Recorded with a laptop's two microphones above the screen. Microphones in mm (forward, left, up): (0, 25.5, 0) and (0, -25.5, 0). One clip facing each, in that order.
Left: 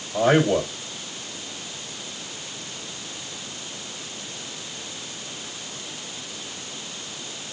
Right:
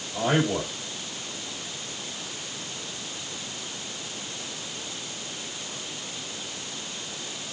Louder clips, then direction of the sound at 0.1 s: Left 6 dB; 55° left (ahead or behind).